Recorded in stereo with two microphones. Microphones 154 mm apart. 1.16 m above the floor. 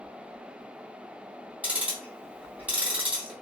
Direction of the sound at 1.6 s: 10° right (ahead or behind).